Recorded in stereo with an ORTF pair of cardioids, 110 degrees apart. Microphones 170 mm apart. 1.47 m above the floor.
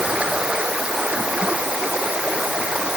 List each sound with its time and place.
0.0 s running water: 5° right